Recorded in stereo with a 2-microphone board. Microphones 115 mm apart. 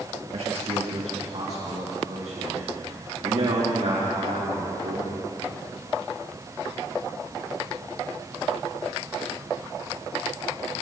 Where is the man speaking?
65° right (ahead or behind), 3 m; by 5.3 s 80° right, 6 m.